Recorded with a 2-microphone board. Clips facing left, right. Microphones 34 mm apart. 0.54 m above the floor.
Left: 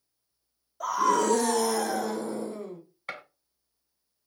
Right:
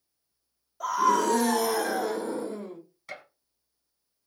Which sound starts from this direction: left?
A gunshot, at 3.1 s.